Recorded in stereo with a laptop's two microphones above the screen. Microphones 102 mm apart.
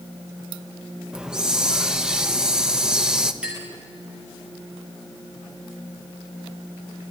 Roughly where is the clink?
Centre.